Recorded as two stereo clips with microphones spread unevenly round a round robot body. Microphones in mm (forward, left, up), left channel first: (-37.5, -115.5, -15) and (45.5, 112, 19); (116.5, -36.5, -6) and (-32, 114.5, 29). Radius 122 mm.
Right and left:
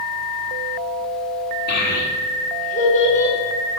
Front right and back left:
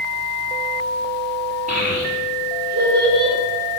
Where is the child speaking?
160° right, 1.8 m; by 3.4 s 175° right, 3 m.